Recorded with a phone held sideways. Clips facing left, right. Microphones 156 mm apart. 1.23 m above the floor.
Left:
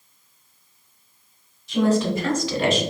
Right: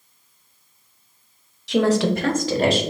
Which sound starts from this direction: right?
A woman speaking, at 1.7 s.